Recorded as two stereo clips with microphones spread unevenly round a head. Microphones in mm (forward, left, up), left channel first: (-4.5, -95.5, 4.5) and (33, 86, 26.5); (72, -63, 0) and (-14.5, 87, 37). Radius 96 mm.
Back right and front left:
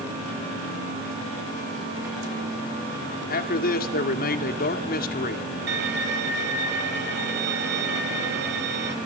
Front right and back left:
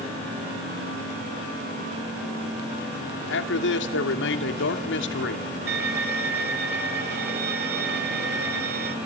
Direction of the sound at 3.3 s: 60° right.